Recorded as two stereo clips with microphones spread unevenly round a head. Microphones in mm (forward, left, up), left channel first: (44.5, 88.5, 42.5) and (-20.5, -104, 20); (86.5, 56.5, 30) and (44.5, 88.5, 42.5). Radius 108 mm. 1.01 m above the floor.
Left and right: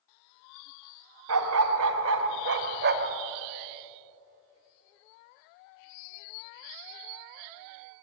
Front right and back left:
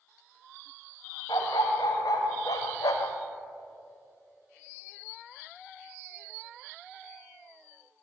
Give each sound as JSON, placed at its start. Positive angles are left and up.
{"t": 1.3, "sound": "a dog barking", "azimuth_deg": -95, "distance_m": 2.0}